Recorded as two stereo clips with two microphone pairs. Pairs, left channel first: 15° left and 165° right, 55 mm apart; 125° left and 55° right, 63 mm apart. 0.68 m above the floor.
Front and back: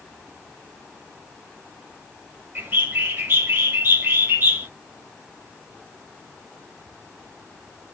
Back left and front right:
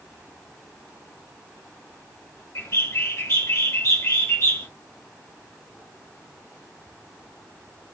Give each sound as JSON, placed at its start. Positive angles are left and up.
{"t": 2.5, "sound": "a bird", "azimuth_deg": 155, "distance_m": 1.4}